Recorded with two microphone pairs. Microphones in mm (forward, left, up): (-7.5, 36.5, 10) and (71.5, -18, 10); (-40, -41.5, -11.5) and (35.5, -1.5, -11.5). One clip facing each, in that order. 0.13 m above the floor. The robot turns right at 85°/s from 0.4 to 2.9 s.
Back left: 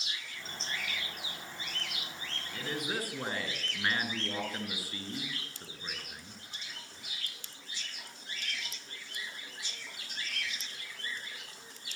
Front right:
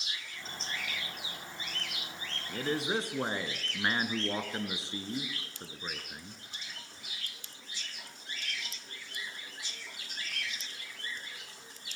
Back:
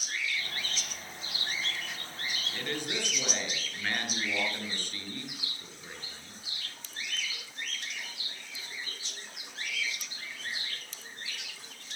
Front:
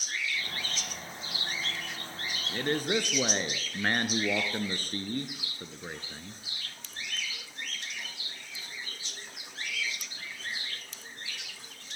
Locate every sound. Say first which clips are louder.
2.5 s a man speaking: front right 5 dB, front 9 dB; 20° right, 2.5 m; by 6.4 s 15° left, 2.5 m